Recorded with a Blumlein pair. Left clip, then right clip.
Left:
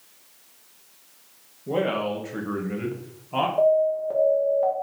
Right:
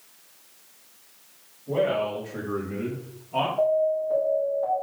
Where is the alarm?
25° left, 2.0 m.